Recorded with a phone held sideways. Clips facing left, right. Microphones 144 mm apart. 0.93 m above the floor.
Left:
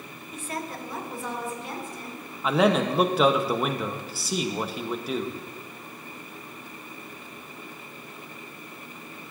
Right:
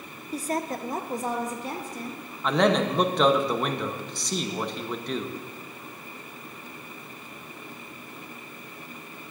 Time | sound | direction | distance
0.3 | a woman speaking | 35° right (ahead or behind) | 0.5 m
2.4 | a man speaking | 5° left (ahead or behind) | 0.7 m